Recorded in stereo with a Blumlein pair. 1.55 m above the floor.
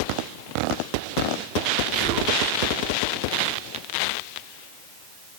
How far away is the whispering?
About 2 m.